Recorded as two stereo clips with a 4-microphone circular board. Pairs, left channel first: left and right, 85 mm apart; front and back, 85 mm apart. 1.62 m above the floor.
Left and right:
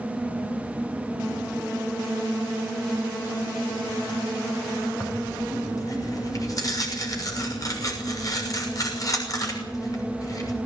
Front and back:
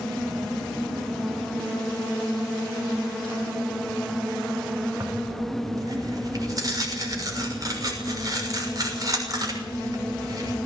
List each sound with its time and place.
5.0 s tearing paper: 135° left, 6.5 m